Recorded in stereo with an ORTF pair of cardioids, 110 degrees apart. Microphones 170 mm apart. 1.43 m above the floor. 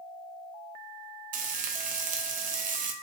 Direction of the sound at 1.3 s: 55° right.